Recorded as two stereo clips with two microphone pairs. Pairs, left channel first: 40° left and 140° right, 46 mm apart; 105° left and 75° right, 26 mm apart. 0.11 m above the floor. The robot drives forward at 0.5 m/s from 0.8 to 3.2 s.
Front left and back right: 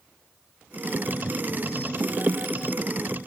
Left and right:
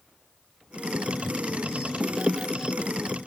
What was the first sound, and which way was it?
Only background noise.